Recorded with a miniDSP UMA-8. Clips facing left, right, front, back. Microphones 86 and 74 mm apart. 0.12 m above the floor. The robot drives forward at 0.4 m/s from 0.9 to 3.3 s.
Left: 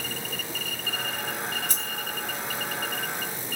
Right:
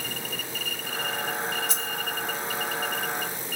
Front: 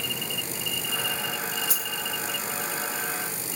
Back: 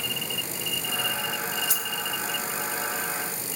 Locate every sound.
1.7 s a dropped coin: 45° left, 2 m; by 1.9 s 50° left, 2 m